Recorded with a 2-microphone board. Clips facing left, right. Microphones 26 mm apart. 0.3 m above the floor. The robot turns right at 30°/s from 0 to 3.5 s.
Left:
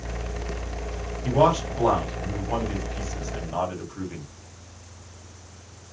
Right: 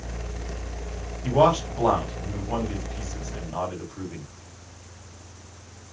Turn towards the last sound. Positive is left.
turn(degrees=30)  # may be behind; listen again after turning